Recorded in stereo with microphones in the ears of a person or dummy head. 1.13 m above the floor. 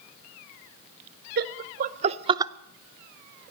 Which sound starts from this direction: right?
Laughter, at 1.4 s.